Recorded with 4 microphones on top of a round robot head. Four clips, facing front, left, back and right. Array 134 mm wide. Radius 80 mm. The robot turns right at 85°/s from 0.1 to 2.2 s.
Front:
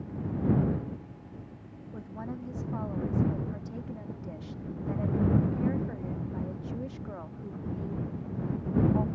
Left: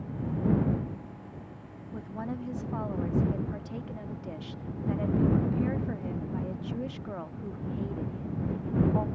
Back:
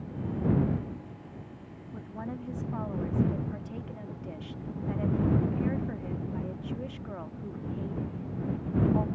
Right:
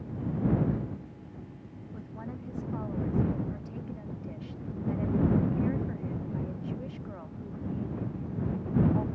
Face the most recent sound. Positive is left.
turn(degrees=95)